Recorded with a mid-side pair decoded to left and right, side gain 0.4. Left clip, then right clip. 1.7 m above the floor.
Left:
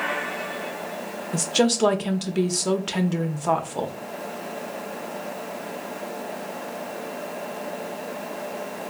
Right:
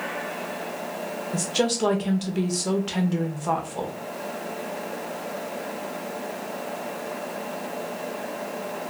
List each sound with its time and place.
1.3 s a woman speaking: 35° left, 0.7 m